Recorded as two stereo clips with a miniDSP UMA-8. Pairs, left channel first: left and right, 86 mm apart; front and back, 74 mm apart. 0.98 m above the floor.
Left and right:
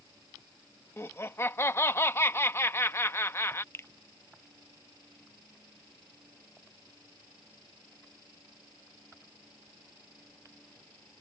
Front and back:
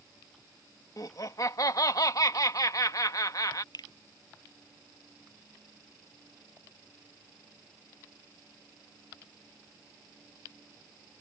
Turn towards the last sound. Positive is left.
turn(degrees=25)